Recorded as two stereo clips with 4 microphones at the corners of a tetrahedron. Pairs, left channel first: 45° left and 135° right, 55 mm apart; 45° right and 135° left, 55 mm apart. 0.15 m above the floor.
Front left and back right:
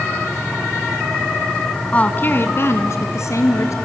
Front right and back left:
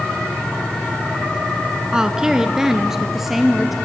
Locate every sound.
1.9 s a woman speaking: 70° left, 1.3 m; by 3.8 s 50° left, 2.5 m